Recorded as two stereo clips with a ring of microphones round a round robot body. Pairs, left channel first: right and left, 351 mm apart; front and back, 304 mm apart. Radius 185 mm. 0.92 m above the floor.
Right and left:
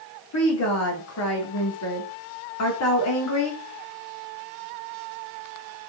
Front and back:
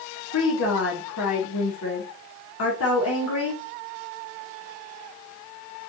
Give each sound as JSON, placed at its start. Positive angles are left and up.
{"t": 0.3, "sound": "a woman speaking", "azimuth_deg": -45, "distance_m": 3.0}